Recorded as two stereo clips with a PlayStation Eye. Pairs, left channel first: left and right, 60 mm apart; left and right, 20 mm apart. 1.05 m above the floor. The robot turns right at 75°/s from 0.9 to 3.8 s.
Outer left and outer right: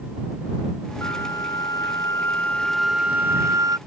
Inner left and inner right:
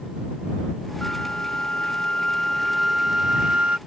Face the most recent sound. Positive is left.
turn(degrees=-110)